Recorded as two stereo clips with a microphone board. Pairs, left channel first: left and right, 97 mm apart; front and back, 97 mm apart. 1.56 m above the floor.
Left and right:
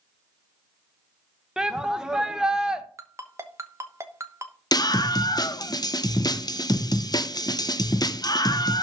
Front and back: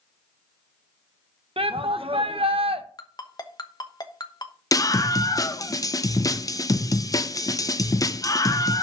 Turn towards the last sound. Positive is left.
turn(degrees=50)